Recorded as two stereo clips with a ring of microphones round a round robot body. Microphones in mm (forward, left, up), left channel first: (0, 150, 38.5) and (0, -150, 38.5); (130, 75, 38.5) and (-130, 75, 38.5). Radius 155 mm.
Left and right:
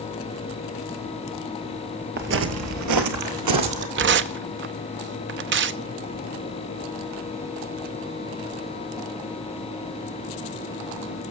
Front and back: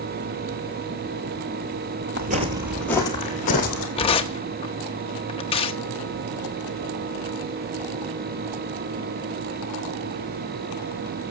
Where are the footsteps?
135° right, 0.9 m; by 3.9 s 55° right, 1.7 m.